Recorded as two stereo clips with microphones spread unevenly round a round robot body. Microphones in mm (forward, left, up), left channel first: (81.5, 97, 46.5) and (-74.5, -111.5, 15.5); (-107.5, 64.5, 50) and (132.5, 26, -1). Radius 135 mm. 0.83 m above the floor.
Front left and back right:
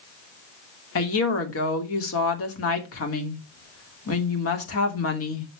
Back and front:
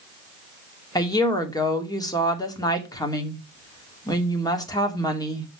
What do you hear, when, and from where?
0.9 s a woman speaking: 95° left, 2.5 m